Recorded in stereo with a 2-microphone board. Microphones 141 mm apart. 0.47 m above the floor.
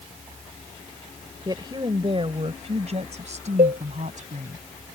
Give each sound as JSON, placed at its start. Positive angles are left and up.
{"t": 1.4, "sound": "a woman speaking", "side_deg": -30}
{"t": 3.6, "sound": "a cowbell", "side_deg": -70}